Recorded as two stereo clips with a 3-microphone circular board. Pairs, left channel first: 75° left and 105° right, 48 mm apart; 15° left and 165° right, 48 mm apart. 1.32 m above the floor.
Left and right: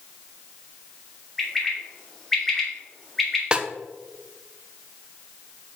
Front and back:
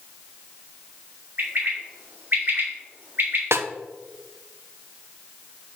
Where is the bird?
155° left, 2.5 m.